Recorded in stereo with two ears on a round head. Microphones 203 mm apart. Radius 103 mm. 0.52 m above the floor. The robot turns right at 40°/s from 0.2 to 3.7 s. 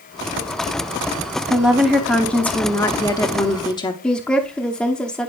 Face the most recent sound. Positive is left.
turn(degrees=5)  # may be behind; listen again after turning